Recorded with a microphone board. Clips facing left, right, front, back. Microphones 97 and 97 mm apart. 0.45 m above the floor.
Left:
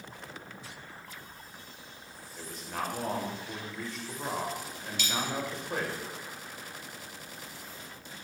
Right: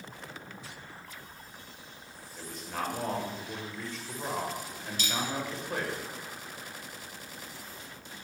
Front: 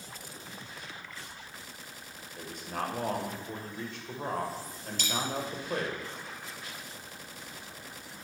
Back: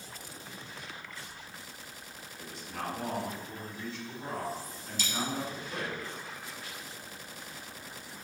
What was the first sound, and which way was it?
A man speaking, straight ahead.